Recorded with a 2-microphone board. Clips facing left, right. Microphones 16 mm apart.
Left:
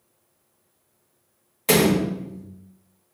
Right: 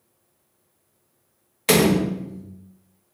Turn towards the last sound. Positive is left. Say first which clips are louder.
# right 1 dB
turn(degrees=-30)  # may be behind; listen again after turning